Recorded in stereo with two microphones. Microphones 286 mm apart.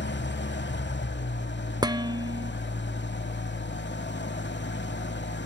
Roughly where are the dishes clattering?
Centre.